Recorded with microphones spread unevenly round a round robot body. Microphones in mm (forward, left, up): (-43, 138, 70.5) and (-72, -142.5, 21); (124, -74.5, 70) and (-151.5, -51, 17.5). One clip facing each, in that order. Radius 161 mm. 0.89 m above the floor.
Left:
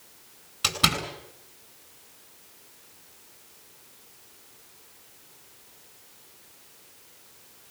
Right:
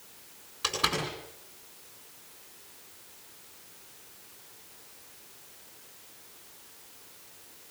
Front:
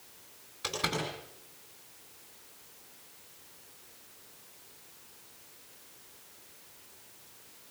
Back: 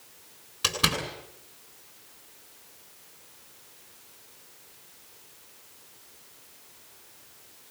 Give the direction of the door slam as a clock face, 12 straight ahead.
8 o'clock.